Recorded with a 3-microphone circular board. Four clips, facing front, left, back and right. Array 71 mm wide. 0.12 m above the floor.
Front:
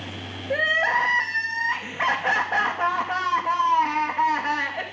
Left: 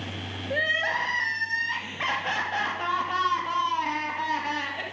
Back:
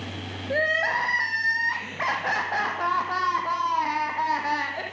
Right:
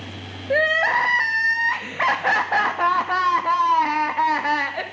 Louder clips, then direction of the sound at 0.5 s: Right 8 dB, front 2 dB; 80° right.